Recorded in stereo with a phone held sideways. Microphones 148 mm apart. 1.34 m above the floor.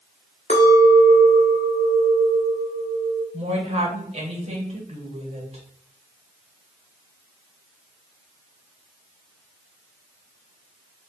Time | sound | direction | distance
0.5 | a clink | 50° left (ahead or behind) | 0.9 m
3.3 | a woman speaking | 45° right (ahead or behind) | 1.2 m